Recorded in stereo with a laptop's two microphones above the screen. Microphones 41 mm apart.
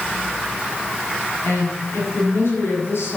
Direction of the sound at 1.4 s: 80° left.